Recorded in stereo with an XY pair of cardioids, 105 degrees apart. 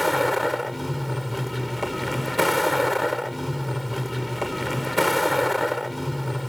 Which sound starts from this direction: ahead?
A vehicle, at 0.0 s.